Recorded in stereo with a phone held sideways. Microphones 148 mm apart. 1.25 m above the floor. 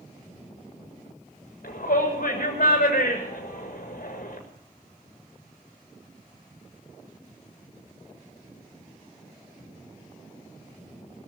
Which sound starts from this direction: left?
A shout, at 1.6 s.